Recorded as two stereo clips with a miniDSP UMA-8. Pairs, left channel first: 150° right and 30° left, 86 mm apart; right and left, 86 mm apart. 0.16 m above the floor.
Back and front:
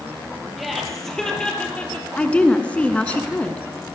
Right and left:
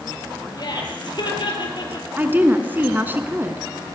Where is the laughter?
60° right, 5.5 m; by 2.1 s 80° right, 4.5 m.